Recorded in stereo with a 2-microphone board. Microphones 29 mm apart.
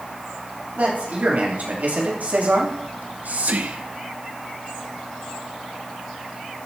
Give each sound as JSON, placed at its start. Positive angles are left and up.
{"t": 0.8, "sound": "a man speaking", "side_deg": -65, "distance_m": 4.0}
{"t": 2.9, "sound": "whispering", "side_deg": -70, "distance_m": 0.5}